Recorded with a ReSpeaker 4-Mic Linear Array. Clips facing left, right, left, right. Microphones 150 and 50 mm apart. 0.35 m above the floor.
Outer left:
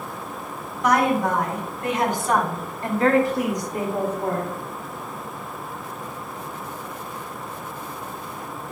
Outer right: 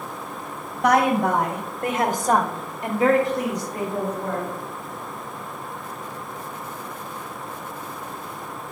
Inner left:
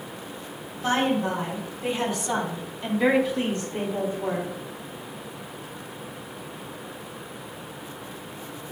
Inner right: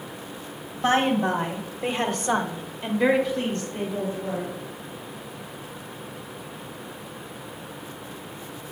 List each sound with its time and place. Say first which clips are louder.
0.8 s a woman speaking: outer right 1 dB, inner right 2 dB; 60° right (ahead or behind), 2.5 m; by 4.5 s 35° left (ahead or behind), 2 m